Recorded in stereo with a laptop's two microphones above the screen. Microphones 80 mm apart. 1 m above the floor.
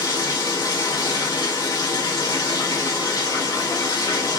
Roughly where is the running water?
Left.